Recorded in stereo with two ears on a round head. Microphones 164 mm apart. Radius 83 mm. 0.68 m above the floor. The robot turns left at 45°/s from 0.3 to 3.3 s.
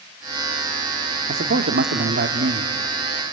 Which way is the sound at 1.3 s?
65° right.